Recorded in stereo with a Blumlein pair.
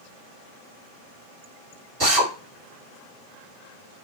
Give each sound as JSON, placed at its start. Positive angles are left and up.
{"t": 2.0, "sound": "a drill", "azimuth_deg": -30, "distance_m": 1.6}